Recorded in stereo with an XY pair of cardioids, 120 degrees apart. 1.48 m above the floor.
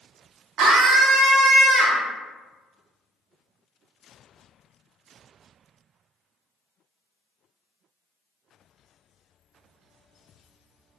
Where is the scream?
65° right, 0.7 m; by 2.0 s 10° right, 0.9 m.